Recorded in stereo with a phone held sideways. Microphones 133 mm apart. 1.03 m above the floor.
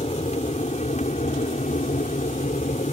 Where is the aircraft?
50° left (ahead or behind); by 2.9 s 60° left (ahead or behind).